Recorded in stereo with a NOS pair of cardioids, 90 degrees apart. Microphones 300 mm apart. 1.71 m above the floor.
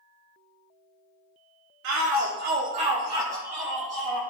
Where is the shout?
55° right, 1.2 m; by 4.2 s 5° left, 1.9 m.